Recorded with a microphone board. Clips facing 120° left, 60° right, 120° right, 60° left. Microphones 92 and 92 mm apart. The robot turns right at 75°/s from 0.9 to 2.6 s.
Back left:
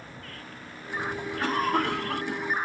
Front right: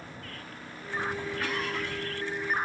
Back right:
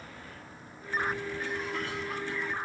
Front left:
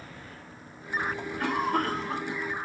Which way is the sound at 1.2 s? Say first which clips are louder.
Back left 5 dB, front left 6 dB; 45° left.